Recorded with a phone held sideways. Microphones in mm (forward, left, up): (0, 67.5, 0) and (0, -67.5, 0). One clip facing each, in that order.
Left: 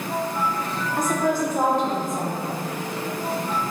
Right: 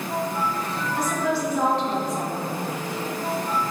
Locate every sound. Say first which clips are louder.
1.0 s a woman speaking: left 3 dB; 45° left (ahead or behind), 0.8 m